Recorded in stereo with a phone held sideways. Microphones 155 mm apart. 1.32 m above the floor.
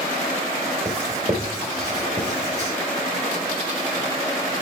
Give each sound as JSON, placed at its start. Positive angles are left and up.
{"t": 0.8, "sound": "writing", "side_deg": -20, "distance_m": 5.0}